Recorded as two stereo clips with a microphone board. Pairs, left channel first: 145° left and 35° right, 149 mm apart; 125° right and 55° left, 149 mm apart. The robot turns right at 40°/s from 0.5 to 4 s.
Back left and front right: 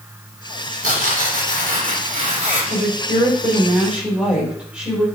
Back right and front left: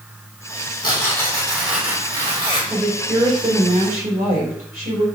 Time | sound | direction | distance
0.8 | tearing paper | 65° right | 3.5 m
2.7 | a woman speaking | 5° right | 4.5 m